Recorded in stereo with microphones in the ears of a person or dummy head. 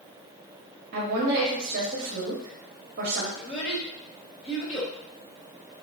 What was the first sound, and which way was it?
A woman speaking, 45° right (ahead or behind).